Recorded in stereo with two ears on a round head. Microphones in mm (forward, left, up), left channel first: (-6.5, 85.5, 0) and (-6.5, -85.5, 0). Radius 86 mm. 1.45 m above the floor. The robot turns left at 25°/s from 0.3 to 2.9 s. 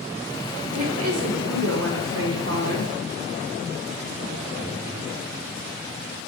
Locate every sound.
0.7 s a woman speaking: 80° right, 1.2 m; by 2.9 s 130° right, 1.2 m